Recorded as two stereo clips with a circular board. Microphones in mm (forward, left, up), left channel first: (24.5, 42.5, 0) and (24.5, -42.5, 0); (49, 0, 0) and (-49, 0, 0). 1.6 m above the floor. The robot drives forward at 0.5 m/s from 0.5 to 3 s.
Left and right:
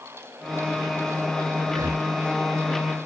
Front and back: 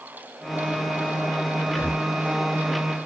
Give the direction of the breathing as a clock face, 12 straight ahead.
2 o'clock.